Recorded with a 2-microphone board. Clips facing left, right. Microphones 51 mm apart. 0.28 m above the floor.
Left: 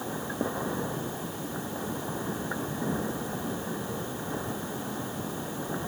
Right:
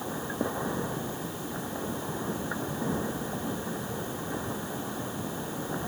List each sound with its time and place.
Only background noise.